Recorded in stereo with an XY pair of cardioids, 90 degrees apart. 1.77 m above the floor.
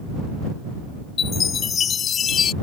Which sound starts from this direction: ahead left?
A chime, at 1.2 s.